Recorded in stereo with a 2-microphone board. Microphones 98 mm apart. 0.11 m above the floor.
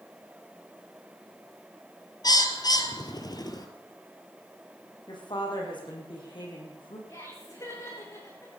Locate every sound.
2.2 s a bird: 45° left (ahead or behind), 1.4 m
5.1 s a woman speaking: 55° left (ahead or behind), 5 m
7.1 s laughter: 35° left (ahead or behind), 7.5 m